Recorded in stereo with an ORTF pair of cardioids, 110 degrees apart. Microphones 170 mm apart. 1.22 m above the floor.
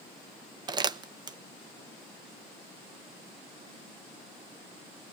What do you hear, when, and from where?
0.7 s crumpling: 25° right, 0.8 m